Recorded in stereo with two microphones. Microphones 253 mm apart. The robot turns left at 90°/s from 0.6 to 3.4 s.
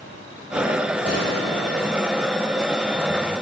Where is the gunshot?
110° left, 5 m; by 2.0 s 20° left, 5 m.